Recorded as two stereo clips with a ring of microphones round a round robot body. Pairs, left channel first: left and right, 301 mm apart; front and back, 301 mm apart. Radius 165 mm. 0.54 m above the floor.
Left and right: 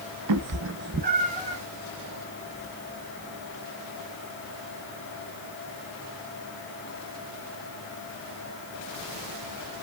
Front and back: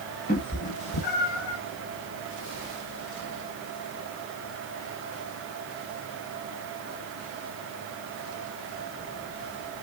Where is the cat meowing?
70° right, 0.9 m; by 1.6 s 20° right, 2.5 m.